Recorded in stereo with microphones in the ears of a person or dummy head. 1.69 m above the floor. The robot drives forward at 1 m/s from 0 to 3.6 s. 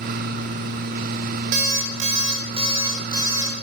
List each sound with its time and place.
1.5 s an alarm clock: 35° right (ahead or behind), 1.0 m; by 3.5 s 15° right (ahead or behind), 2.5 m